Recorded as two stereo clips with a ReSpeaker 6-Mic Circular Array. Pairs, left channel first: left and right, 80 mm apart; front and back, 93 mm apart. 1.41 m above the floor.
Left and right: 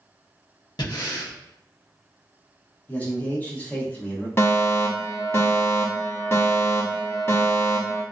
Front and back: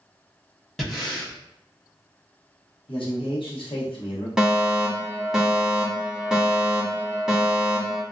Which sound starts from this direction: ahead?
A man speaking, at 2.9 s.